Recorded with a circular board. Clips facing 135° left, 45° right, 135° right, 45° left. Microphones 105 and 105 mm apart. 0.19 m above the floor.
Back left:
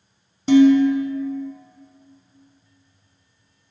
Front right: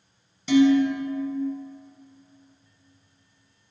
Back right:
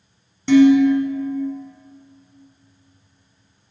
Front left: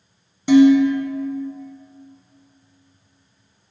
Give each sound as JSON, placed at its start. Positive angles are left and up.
{"t": 0.5, "sound": "dishes clattering", "azimuth_deg": 115, "distance_m": 0.9}